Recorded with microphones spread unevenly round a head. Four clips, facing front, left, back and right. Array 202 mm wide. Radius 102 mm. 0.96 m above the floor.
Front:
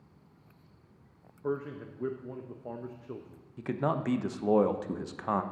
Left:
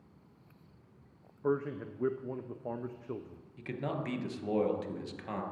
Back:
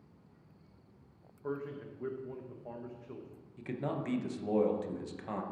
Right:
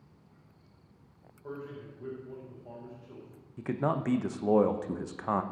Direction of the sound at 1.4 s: 60° left.